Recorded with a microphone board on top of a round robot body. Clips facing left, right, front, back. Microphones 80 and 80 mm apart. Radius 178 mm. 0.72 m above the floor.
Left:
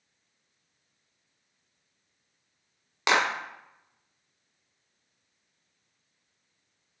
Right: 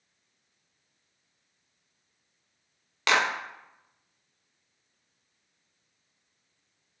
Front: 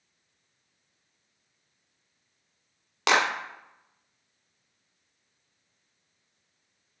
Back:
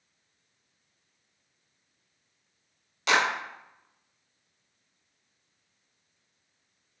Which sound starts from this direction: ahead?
A clap, at 3.1 s.